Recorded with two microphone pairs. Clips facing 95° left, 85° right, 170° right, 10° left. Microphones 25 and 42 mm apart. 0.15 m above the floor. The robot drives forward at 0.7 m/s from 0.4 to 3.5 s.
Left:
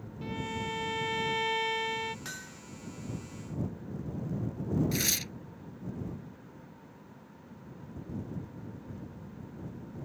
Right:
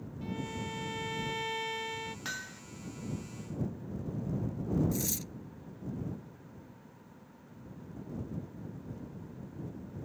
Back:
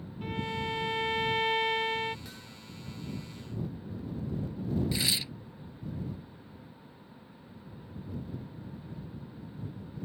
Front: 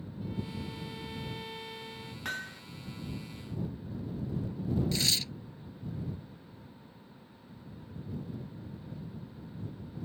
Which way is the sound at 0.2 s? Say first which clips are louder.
Left 3 dB, back 6 dB; 160° left.